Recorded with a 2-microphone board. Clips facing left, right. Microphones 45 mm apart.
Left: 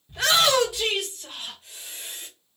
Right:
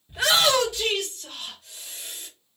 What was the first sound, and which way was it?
A shout, 10° right (ahead or behind).